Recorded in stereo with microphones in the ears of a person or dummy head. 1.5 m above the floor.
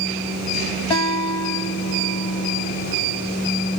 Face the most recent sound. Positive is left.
turn(degrees=15)  # may be behind; listen again after turning